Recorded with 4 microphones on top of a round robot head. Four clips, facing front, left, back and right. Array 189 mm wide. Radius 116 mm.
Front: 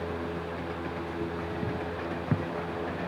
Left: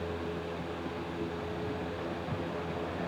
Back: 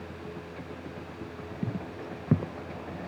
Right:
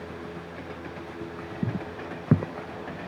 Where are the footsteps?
110° right.